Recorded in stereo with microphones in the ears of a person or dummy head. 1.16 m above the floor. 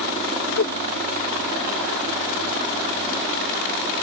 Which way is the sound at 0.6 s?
45° left (ahead or behind).